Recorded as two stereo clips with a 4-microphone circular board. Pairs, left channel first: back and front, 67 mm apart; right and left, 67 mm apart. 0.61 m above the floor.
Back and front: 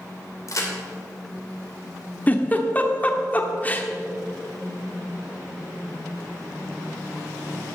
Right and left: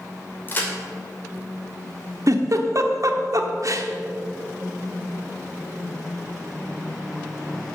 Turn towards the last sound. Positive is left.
turn(degrees=115)